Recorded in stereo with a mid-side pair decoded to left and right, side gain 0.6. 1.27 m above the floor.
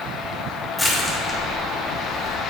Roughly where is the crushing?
Ahead.